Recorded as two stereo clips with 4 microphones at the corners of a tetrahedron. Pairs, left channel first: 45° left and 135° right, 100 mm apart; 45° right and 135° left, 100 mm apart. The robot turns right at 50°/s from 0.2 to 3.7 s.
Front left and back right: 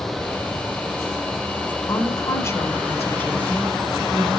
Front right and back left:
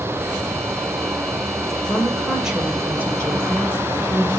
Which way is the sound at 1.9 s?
30° left.